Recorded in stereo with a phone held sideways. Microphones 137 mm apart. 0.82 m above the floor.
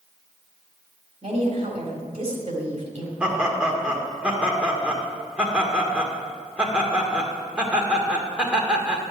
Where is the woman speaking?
45° right (ahead or behind), 3.5 m.